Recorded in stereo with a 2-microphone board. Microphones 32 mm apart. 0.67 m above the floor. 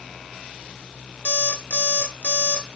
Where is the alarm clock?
50° left (ahead or behind), 2 m.